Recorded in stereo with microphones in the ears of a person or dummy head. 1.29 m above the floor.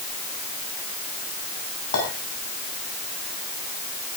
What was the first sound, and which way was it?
A clink, 85° left.